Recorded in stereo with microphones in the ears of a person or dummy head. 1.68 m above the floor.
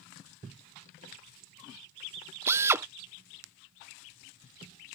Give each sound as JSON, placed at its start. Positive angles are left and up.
{"t": 2.5, "sound": "a drill", "side_deg": -15}